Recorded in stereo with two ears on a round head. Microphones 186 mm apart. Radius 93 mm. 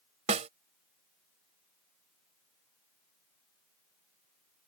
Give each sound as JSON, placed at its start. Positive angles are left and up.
{"t": 0.3, "sound": "a snare drum", "side_deg": -35}